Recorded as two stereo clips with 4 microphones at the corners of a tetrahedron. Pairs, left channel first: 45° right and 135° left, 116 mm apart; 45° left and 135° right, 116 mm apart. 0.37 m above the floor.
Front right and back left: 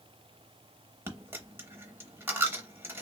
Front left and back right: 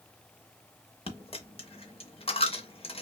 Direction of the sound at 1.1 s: 70° left.